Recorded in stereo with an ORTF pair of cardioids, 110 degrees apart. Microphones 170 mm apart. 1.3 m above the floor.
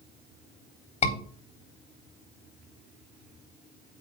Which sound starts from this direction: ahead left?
A scream, at 1.0 s.